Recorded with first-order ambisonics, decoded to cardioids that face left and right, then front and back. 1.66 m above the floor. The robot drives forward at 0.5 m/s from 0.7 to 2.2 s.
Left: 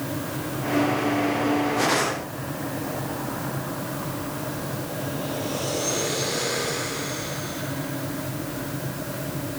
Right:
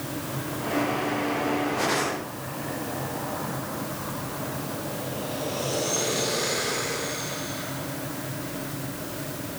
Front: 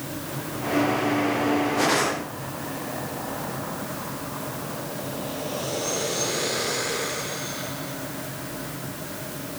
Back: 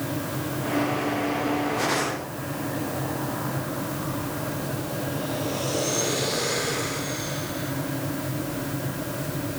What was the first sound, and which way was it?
Only background noise.